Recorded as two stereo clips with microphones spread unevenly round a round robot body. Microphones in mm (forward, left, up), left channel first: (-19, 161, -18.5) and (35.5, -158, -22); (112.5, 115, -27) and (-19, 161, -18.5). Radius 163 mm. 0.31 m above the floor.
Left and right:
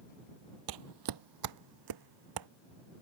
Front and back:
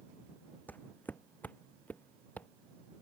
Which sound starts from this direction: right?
Footsteps, at 0.7 s.